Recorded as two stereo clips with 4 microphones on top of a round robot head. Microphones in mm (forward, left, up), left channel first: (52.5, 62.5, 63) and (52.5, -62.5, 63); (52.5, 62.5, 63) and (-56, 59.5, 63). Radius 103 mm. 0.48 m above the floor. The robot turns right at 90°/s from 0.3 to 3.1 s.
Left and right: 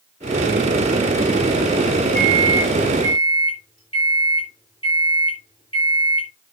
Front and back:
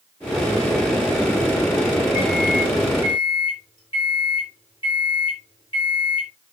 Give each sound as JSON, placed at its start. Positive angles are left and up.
{"t": 2.1, "sound": "a microwave", "azimuth_deg": -45, "distance_m": 7.0}